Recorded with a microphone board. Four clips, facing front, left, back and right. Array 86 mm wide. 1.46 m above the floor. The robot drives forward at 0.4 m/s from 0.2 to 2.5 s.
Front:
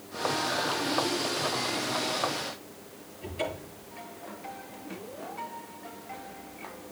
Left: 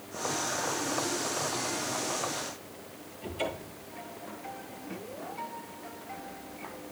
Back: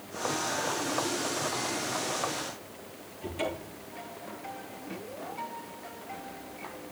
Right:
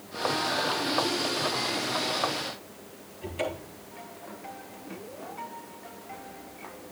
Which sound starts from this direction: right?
A cupboard door, at 3.2 s.